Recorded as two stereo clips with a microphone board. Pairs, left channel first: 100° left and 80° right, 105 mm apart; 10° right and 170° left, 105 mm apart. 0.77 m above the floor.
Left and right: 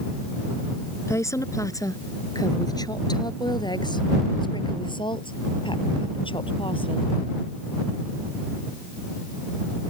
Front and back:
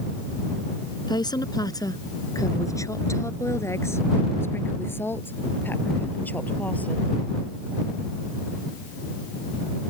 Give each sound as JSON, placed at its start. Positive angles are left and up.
{"t": 1.1, "sound": "a woman speaking", "azimuth_deg": 35}